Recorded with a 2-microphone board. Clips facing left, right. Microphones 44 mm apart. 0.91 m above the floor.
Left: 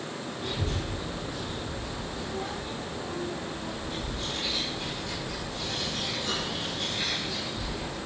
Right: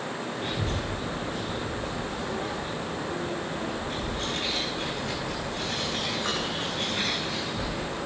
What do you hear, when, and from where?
0.4 s a child speaking: 45° right (ahead or behind), 6 m; by 8.0 s 75° right (ahead or behind), 4.5 m